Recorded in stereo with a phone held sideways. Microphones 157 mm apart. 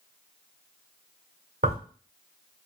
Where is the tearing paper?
75° right (ahead or behind), 1.4 m.